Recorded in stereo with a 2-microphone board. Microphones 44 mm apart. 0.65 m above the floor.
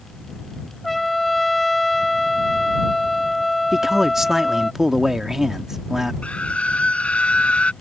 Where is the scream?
30° left (ahead or behind).